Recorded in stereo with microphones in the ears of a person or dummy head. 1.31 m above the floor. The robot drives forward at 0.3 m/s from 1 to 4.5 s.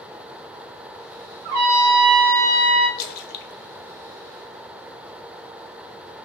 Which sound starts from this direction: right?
A trumpet, at 1.4 s.